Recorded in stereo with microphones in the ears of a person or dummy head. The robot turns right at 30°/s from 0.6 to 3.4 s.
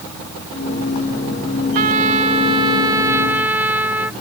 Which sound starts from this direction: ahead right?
A trumpet, at 1.8 s.